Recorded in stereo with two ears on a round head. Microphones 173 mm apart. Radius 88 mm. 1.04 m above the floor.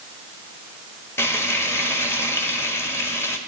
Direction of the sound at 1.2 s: 15° left (ahead or behind).